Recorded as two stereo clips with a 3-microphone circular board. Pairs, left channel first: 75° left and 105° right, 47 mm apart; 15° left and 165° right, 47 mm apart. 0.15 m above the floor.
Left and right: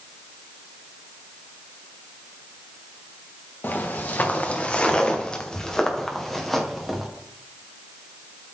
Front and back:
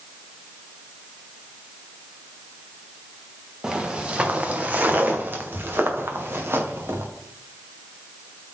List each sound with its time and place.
3.6 s footsteps: 120° left, 1.7 m; by 7.1 s 170° left, 2.5 m